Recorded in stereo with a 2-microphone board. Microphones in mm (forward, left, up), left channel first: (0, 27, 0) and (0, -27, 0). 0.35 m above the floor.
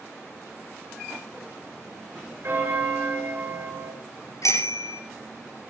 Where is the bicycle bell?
80° left, 5 m.